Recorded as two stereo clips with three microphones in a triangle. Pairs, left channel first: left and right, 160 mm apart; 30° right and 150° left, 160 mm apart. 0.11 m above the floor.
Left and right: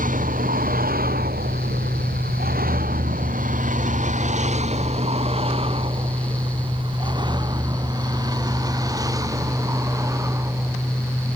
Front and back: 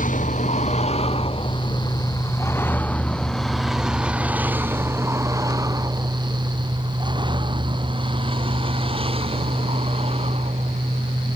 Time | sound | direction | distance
0.0 | a vehicle | 60° right | ?